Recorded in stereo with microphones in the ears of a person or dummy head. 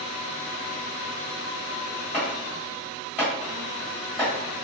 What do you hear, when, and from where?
2.1 s chopping: 5° right (ahead or behind), 1.8 m